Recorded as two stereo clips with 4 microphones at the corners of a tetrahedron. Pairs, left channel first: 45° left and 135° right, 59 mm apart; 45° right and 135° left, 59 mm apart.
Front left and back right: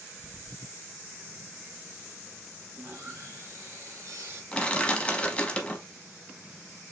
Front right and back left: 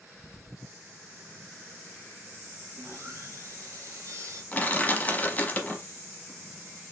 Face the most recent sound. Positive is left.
turn(degrees=-5)